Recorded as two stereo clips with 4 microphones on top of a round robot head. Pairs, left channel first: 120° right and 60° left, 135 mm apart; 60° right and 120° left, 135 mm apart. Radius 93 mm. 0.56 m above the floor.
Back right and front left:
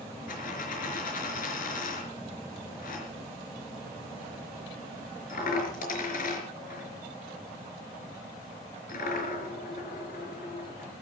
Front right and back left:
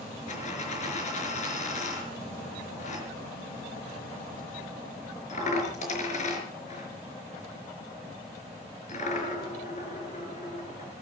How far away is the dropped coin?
About 5 m.